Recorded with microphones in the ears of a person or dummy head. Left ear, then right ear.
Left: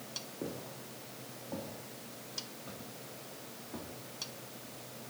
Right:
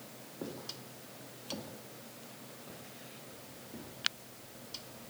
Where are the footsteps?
30° right (ahead or behind), 3.5 m; by 3.9 s 30° left (ahead or behind), 4 m.